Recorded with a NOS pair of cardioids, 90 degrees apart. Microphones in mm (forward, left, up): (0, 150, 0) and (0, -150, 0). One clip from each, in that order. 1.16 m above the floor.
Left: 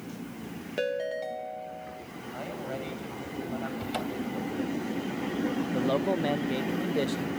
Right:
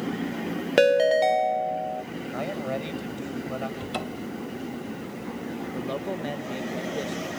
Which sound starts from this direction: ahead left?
A man speaking, at 5.7 s.